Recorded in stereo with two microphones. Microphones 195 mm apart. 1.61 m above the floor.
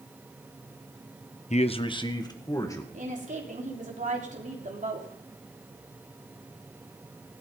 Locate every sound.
1.5 s a man speaking: 35° left (ahead or behind), 0.8 m; by 2.8 s 15° left (ahead or behind), 2.5 m
2.9 s a woman speaking: 40° right (ahead or behind), 3.5 m